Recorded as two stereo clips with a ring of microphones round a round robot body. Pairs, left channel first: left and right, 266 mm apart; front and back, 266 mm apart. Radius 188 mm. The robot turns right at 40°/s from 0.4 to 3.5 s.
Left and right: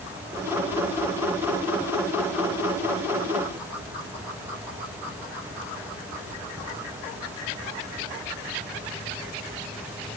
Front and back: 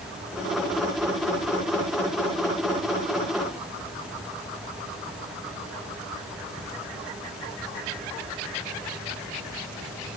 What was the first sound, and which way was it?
Only background noise.